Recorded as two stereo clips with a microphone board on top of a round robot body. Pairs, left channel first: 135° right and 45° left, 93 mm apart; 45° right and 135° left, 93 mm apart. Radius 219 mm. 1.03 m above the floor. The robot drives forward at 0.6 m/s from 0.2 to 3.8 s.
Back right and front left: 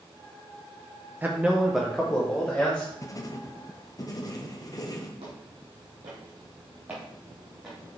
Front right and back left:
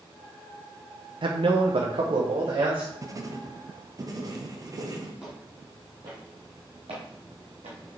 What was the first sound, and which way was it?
A man speaking, 115° left.